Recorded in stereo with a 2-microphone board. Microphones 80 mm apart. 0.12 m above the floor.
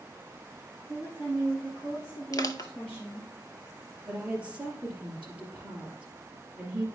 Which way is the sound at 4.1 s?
15° right (ahead or behind).